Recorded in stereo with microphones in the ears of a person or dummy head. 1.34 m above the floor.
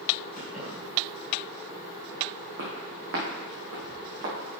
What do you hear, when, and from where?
0.4 s keys jangling: 45° right (ahead or behind), 3.5 m
2.6 s footsteps: 60° right (ahead or behind), 3 m; by 4.3 s 65° right (ahead or behind), 4.5 m